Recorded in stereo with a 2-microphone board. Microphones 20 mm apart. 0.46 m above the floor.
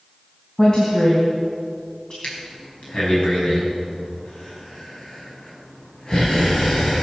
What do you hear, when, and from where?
0.6 s a woman speaking: 35° left (ahead or behind), 3 m
2.2 s breathing: 55° left (ahead or behind), 4.5 m